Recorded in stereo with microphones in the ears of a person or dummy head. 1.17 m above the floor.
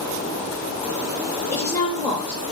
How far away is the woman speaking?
About 0.7 m.